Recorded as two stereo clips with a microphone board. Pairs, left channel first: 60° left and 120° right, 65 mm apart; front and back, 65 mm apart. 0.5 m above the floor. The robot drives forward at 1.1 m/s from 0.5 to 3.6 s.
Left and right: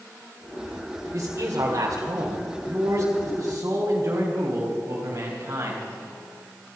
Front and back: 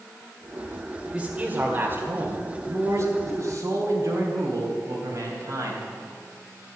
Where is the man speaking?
105° right, 1.7 m; by 5.8 s 160° right, 3.5 m.